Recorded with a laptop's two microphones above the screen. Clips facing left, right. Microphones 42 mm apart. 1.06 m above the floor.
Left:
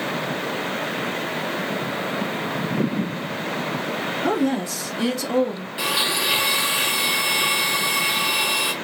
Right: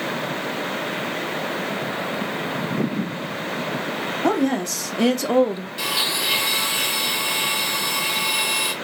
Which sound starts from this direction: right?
A woman speaking, at 4.2 s.